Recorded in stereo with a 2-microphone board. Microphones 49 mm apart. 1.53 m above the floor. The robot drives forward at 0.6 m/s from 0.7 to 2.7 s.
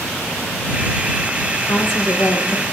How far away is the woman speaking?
About 2 m.